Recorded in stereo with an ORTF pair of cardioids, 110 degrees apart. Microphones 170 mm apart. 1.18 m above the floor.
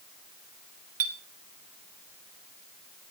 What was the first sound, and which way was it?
A clink, 60° right.